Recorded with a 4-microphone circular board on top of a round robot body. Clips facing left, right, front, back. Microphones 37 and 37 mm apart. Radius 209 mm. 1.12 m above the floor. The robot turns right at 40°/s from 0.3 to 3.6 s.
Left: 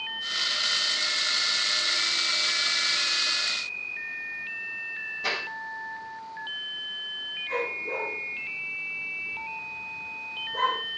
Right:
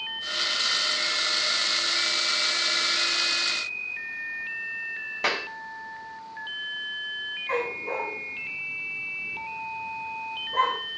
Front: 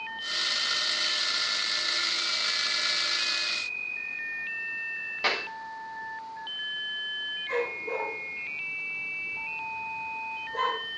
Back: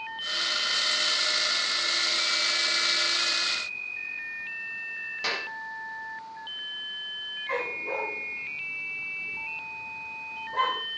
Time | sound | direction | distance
5.2 | a clap | 70° right | 3 m
7.5 | a dog barking | 120° right | 5 m